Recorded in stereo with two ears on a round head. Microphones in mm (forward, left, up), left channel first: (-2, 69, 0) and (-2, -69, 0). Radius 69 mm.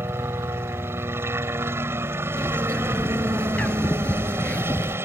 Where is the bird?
10° left (ahead or behind).